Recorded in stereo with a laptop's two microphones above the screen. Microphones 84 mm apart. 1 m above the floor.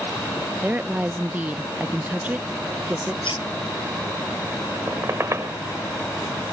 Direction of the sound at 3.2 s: 90° left.